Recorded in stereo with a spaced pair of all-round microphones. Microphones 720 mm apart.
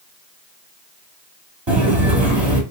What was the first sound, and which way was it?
Footsteps, 40° right (ahead or behind).